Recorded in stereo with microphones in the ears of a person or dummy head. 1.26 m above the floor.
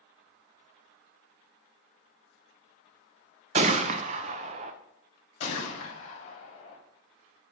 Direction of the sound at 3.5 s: 35° right (ahead or behind).